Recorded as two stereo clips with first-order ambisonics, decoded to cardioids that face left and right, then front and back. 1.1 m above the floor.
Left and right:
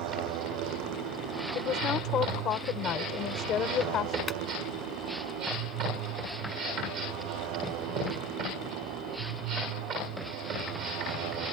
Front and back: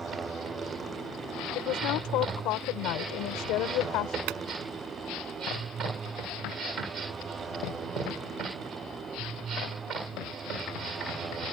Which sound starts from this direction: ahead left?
A woman speaking, at 1.6 s.